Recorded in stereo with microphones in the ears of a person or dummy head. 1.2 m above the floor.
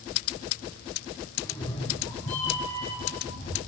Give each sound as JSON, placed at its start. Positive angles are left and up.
{"t": 1.4, "sound": "a cat meowing", "side_deg": 25, "distance_m": 1.7}